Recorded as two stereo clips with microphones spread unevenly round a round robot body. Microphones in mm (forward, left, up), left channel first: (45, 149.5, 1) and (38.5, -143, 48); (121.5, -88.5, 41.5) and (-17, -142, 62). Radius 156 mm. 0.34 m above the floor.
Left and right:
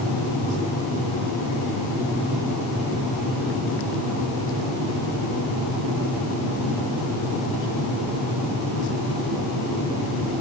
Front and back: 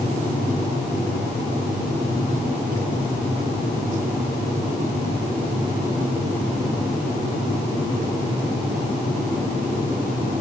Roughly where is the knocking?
I don't hear knocking.